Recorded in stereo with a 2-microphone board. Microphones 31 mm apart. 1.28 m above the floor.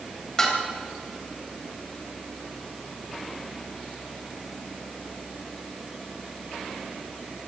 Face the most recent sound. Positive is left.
turn(degrees=20)  # may be behind; listen again after turning